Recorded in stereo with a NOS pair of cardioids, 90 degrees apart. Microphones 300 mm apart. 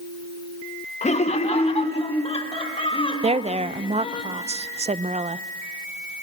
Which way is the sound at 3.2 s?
20° right.